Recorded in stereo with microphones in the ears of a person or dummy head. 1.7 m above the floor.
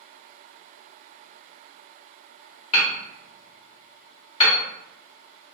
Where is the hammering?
30° left (ahead or behind), 0.9 m.